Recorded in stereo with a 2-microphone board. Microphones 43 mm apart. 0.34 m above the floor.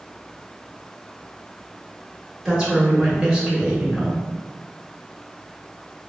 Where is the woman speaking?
20° right (ahead or behind), 1.0 m.